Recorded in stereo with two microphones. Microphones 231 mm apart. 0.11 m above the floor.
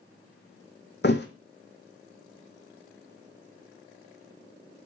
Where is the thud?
50° left (ahead or behind), 0.9 m.